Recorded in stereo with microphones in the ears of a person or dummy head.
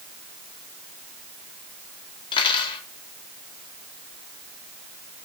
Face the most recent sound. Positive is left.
turn(degrees=25)  # may be behind; listen again after turning